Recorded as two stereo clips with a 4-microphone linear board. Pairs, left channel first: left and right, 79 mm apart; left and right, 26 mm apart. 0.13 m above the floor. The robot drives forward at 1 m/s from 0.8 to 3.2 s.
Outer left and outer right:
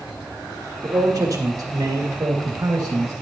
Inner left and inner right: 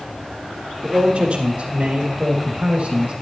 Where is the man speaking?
45° right (ahead or behind), 3 m; by 3.1 s 50° right (ahead or behind), 2.5 m.